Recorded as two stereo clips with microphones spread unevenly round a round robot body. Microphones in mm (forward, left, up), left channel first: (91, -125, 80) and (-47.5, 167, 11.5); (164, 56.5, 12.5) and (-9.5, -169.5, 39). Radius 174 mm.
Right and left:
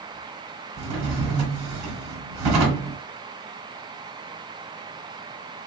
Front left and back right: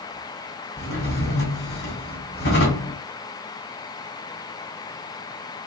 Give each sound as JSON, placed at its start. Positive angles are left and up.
{"t": 0.8, "sound": "a drawer", "azimuth_deg": 110, "distance_m": 1.2}